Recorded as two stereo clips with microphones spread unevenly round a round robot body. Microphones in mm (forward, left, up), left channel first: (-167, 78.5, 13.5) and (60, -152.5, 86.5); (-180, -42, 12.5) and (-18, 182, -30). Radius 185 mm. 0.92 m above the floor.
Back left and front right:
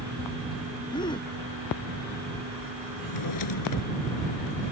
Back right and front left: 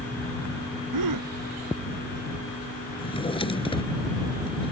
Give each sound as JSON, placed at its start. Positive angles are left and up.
{"t": 0.9, "sound": "a gasp", "azimuth_deg": 55}
{"t": 3.0, "sound": "a drawer", "azimuth_deg": 165}